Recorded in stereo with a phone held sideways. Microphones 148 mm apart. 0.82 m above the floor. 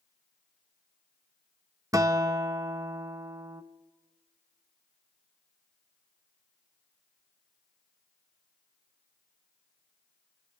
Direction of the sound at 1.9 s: 25° right (ahead or behind).